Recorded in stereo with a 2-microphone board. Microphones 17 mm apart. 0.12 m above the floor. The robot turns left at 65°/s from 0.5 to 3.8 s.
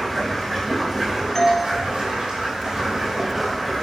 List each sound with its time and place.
0.0 s running water: 20° left, 3.5 m; by 3.8 s 165° left, 3.5 m
1.4 s a doorbell: 20° left (ahead or behind), 1.5 m; by 1.7 s 15° left (ahead or behind), 1.5 m